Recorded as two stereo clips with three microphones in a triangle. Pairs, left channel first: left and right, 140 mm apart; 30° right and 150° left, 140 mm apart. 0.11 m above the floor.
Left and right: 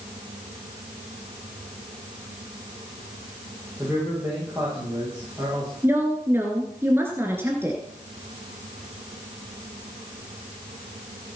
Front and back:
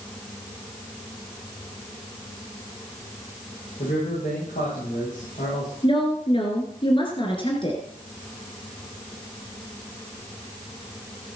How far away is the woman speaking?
About 1.9 m.